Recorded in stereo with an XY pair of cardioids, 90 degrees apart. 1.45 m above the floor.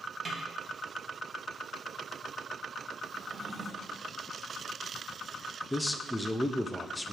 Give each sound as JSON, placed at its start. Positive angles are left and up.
{"t": 0.2, "sound": "a snare drum", "azimuth_deg": -30, "distance_m": 1.6}
{"t": 3.1, "sound": "a drawer", "azimuth_deg": -20, "distance_m": 1.6}
{"t": 5.7, "sound": "a man speaking", "azimuth_deg": 15, "distance_m": 0.6}